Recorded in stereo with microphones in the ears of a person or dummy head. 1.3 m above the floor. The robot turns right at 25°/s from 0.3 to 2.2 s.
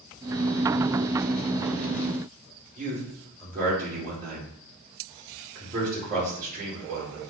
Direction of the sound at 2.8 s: 40° right (ahead or behind).